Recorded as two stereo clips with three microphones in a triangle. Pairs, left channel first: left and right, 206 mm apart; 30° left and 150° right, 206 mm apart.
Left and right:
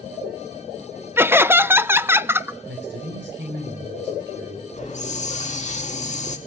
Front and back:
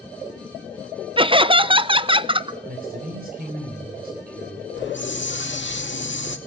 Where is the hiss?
40° left, 2 m.